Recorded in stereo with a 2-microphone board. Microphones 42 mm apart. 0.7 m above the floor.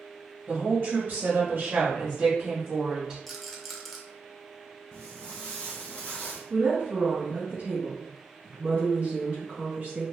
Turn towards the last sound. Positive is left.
turn(degrees=-35)  # may be behind; listen again after turning